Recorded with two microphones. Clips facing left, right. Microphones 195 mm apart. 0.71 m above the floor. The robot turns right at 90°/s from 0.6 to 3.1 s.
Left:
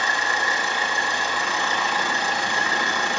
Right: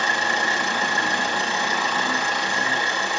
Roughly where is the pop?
No pop in this recording.